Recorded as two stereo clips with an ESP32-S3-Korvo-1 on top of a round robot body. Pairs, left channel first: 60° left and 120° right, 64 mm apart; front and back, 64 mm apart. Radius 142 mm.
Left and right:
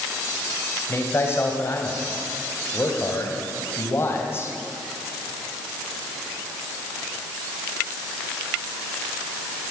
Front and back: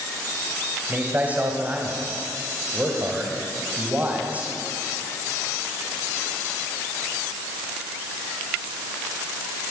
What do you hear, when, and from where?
0.9 s a man speaking: 115° left, 3 m